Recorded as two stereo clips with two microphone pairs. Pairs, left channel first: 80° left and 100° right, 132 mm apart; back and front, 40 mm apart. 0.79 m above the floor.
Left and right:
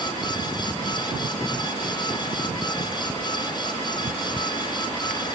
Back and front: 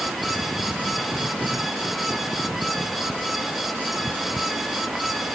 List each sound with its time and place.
Only background noise.